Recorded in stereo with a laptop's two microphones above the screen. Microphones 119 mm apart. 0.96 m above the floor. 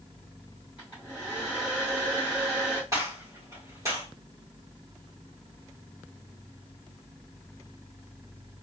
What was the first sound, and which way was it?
A hair dryer, 20° right (ahead or behind).